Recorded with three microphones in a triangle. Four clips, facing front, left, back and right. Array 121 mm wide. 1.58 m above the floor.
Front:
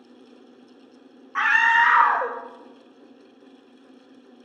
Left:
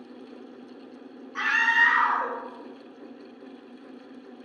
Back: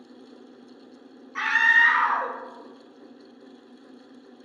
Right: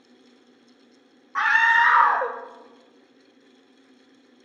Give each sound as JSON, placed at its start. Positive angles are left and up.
{"t": 1.4, "sound": "a scream", "azimuth_deg": -55, "distance_m": 0.5}